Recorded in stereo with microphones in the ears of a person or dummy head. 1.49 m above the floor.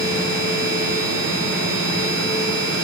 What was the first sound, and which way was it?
A machine running, 65° left (ahead or behind).